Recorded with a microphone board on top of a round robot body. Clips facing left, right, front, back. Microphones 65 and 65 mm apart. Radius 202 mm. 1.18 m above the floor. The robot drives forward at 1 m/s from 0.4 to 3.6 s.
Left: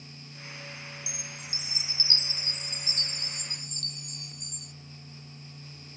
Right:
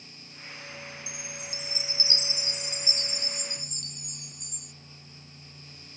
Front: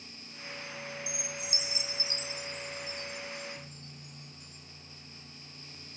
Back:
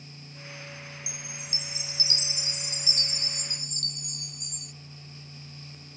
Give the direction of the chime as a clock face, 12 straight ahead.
1 o'clock.